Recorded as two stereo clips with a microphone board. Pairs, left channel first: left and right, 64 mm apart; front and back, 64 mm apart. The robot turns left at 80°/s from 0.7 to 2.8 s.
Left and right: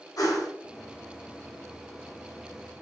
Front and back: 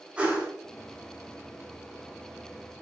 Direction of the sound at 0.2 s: 110° left.